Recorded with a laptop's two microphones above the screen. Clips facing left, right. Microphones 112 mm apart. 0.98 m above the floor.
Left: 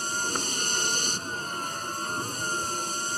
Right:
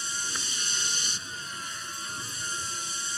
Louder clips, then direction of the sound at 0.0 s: Left 7 dB; 50° left (ahead or behind).